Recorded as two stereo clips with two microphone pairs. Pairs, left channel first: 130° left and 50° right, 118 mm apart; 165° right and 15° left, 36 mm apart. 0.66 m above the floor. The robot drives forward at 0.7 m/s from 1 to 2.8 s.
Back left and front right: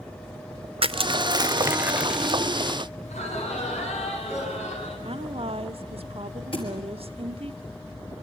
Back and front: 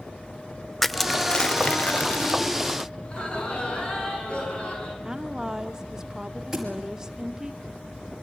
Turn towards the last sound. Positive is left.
turn(degrees=95)